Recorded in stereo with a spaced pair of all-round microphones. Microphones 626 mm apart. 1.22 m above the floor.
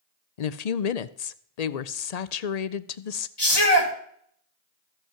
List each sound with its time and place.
0.4 s a woman speaking: 85° left, 0.7 m
3.4 s a shout: 40° left (ahead or behind), 2.5 m